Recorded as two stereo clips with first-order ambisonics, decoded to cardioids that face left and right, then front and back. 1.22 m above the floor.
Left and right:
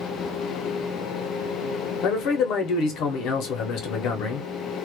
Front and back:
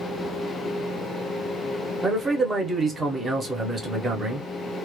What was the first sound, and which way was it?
A man speaking, 105° left.